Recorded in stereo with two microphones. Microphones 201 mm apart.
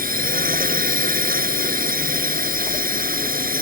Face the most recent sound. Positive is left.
turn(degrees=-45)  # may be behind; listen again after turning